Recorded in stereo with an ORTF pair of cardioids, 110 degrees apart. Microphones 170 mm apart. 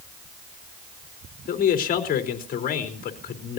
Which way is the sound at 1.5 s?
55° left.